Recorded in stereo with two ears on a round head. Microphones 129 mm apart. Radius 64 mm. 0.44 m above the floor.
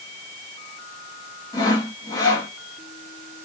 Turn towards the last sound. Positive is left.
turn(degrees=25)  # may be behind; listen again after turning